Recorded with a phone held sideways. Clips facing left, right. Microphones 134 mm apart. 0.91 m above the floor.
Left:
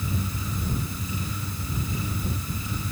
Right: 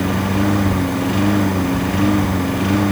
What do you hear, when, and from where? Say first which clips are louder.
0.0 s a lawn mower: right 15 dB; 75° right (ahead or behind)